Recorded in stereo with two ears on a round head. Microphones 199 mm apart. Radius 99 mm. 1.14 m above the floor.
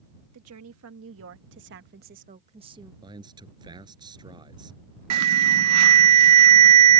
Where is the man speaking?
20° right (ahead or behind).